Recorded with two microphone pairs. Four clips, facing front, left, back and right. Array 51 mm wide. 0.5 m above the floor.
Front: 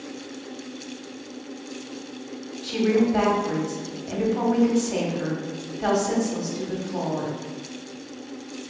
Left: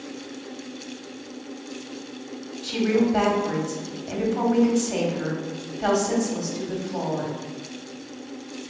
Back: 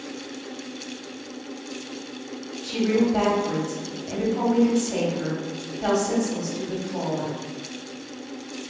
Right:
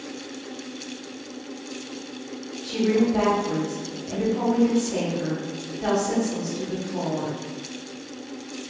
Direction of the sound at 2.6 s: 50° left.